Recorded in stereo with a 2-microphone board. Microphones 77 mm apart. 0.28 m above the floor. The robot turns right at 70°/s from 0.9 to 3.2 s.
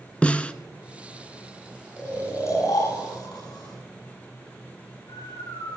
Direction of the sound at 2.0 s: 10° left (ahead or behind).